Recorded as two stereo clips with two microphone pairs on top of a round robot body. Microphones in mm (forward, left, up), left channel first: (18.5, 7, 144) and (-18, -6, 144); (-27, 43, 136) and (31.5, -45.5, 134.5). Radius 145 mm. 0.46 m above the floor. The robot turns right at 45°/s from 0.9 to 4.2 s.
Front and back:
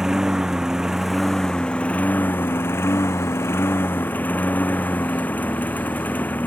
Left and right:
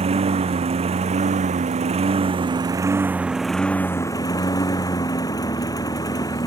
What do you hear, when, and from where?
0.0 s a lawn mower: 80° right; by 6.5 s 65° left